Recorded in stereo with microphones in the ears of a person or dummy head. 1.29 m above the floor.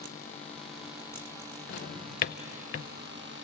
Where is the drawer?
35° left (ahead or behind), 0.5 m.